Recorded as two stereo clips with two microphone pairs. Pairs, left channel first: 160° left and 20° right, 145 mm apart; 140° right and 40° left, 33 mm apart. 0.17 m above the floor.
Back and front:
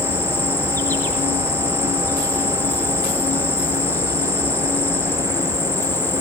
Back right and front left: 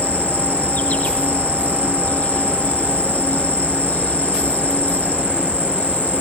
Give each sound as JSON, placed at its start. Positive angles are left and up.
{"t": 0.0, "sound": "an insect", "azimuth_deg": -130, "distance_m": 4.5}